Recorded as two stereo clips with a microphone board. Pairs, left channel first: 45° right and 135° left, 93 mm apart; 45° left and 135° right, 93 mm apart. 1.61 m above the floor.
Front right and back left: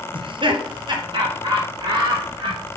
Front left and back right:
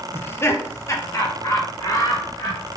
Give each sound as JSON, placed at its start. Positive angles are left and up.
{"t": 0.1, "sound": "laughter", "azimuth_deg": 110, "distance_m": 0.8}